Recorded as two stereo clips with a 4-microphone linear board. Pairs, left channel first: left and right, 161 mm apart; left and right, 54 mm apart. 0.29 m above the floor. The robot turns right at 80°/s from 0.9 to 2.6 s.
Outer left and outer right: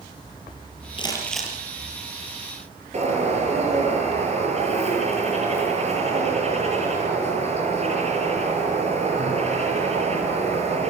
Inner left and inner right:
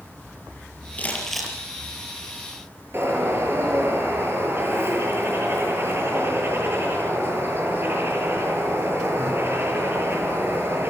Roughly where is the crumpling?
Behind left.